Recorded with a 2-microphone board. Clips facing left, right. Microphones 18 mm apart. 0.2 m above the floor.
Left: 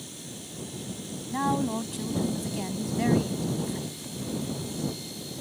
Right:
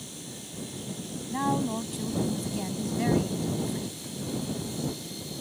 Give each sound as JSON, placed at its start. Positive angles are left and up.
{"t": 1.3, "sound": "a woman speaking", "side_deg": 10}